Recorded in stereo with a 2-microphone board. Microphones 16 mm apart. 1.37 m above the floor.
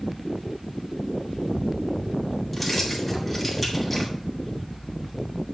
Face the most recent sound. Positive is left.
turn(degrees=0)  # may be behind; listen again after turning